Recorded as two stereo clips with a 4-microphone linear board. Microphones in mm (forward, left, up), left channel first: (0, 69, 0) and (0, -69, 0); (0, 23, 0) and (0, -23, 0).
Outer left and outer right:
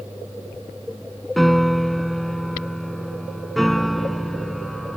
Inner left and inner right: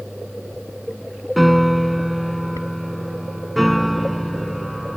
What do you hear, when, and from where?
1.4 s a piano: centre (ahead or behind)